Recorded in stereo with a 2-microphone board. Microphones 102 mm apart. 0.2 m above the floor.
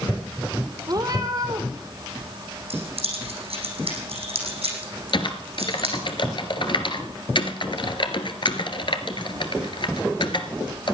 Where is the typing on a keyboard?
55° left (ahead or behind), 1.3 m.